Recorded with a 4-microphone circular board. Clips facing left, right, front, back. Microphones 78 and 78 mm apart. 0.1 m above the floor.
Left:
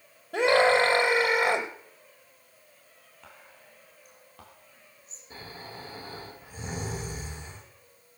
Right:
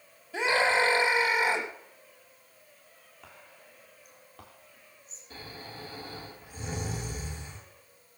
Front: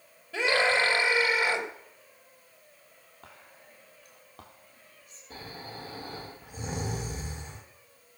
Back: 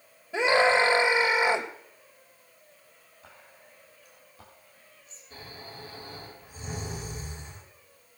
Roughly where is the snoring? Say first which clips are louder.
Left 1 dB, front 3 dB; ahead.